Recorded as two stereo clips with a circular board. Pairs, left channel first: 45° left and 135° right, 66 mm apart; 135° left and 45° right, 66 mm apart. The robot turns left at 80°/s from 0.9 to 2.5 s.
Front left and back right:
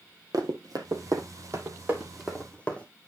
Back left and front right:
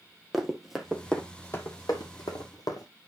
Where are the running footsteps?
135° right, 2 m; by 2.9 s 115° left, 3 m.